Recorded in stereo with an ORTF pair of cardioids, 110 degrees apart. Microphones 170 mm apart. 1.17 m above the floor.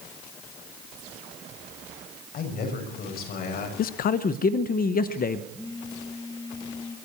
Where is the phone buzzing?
25° left, 3.5 m.